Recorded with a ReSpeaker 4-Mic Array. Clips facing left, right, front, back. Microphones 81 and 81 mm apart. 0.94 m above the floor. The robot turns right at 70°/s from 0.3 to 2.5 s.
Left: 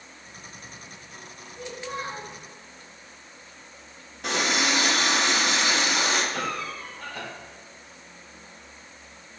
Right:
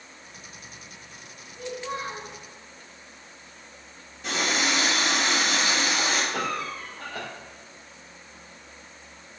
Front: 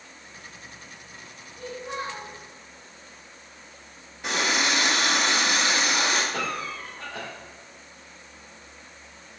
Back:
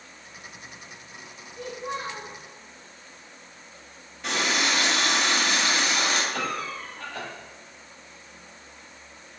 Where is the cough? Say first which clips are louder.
Right 1 dB, even; 75° right, 1.8 m.